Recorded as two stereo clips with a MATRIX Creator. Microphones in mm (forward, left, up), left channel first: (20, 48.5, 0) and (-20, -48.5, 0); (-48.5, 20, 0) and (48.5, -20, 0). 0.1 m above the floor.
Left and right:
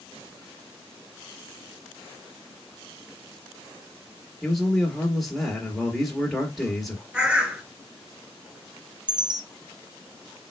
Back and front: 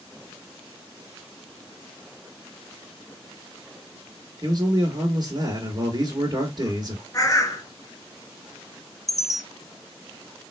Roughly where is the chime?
Behind right.